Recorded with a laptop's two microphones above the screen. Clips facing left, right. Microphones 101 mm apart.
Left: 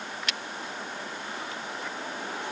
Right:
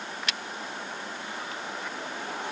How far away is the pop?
I don't hear a pop.